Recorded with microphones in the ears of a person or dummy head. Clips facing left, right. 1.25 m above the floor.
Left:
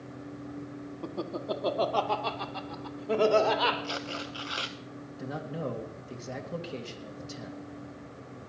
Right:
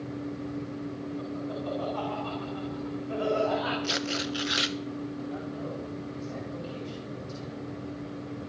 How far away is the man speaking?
About 2.5 m.